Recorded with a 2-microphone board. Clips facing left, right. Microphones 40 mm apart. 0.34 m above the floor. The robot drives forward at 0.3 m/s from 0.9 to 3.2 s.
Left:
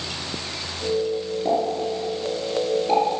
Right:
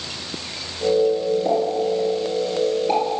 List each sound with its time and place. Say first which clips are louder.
1.4 s a pop: right 3 dB; 5° right (ahead or behind), 5.5 m